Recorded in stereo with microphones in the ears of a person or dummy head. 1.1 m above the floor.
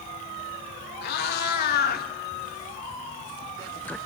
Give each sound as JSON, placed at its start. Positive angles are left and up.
{"t": 1.0, "sound": "a cat meowing", "side_deg": 60, "distance_m": 1.7}